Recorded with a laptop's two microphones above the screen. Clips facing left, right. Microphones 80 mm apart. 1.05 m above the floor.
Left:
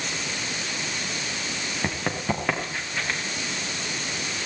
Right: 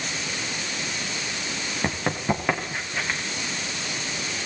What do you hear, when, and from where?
1.8 s running footsteps: 10° right (ahead or behind), 7 m